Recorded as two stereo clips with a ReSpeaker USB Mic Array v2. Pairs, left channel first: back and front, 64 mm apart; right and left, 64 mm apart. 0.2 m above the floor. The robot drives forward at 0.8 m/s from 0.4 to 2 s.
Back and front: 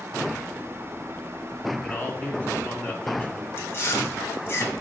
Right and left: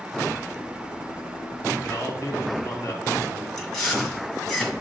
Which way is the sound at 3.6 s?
170° right.